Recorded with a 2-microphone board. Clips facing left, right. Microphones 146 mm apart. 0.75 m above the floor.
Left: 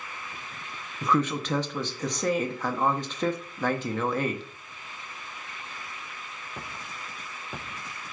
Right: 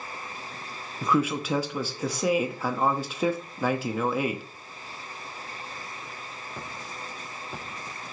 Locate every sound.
1.0 s a man speaking: 10° right (ahead or behind), 0.8 m